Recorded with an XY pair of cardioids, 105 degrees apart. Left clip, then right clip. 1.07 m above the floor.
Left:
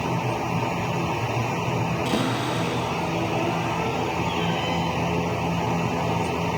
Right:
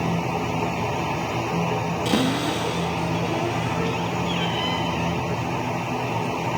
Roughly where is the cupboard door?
Ahead right.